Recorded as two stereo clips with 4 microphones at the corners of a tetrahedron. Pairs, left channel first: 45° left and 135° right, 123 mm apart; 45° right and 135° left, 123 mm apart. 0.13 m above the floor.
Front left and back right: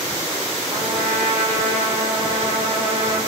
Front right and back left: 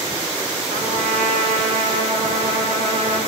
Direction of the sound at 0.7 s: 160° left.